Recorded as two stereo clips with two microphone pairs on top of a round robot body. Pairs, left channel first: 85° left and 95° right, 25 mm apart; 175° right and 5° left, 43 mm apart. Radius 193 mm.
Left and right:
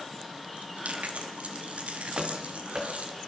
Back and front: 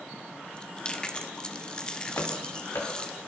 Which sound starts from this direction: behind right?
Running footsteps, at 2.2 s.